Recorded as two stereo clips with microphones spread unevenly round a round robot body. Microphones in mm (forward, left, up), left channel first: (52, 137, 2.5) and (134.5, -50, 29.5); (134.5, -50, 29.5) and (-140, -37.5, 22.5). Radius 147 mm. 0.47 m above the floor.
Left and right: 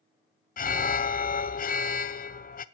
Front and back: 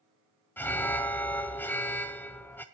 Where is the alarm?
80° left, 0.8 m.